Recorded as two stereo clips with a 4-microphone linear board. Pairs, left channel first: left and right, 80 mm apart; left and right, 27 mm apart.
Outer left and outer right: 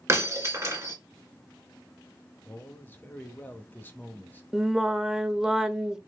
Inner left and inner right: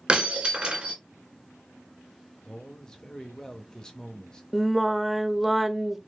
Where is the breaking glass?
40° right (ahead or behind), 1.9 m.